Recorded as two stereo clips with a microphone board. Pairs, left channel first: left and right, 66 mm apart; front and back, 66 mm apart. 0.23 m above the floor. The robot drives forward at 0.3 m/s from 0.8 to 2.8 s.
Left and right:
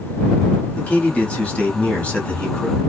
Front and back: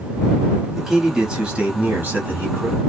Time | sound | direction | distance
0.8 | a man speaking | 105° left | 1.0 m